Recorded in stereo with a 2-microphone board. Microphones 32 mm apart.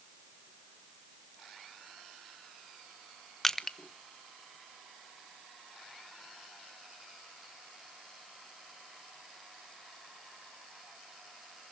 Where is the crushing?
15° left (ahead or behind), 1.0 m.